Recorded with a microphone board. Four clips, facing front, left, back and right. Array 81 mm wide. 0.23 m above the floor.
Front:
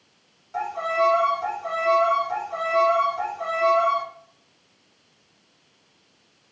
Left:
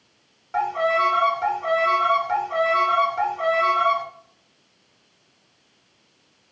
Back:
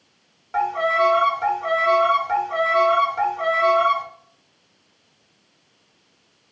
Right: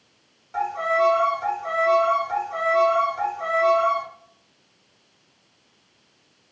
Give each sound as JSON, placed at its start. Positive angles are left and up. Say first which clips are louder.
{"t": 0.5, "sound": "a violin", "louder": "left 1 dB, back 4 dB", "azimuth_deg": 140, "distance_m": 0.9}